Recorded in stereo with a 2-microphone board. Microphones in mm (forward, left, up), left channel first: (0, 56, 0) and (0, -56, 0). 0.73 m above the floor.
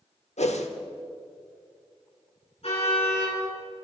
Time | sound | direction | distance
0.4 | a whoosh | 75° left (ahead or behind) | 1.0 m
2.6 | a car horn | 60° left (ahead or behind) | 5.5 m